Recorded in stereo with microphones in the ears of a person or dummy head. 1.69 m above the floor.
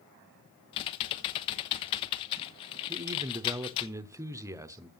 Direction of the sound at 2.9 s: 15° right (ahead or behind).